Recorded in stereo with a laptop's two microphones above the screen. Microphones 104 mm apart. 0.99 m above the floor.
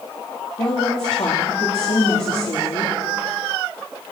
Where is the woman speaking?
70° left (ahead or behind), 2 m.